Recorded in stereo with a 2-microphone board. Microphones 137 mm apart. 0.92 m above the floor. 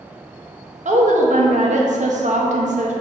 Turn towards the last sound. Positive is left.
turn(degrees=-60)  # may be behind; listen again after turning